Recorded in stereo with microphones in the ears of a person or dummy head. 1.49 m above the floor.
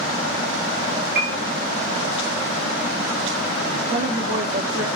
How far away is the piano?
About 0.5 m.